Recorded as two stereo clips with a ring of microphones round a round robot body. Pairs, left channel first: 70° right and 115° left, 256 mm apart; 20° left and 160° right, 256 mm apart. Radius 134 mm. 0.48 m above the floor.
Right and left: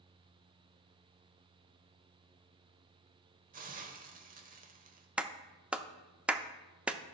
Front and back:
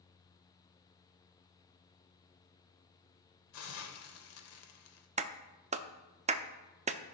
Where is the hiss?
55° left, 1.0 m.